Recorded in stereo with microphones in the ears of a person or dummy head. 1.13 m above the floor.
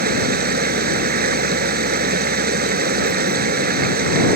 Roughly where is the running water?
Right.